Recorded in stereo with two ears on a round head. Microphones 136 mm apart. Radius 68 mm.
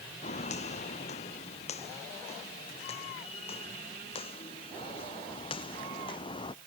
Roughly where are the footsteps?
Left.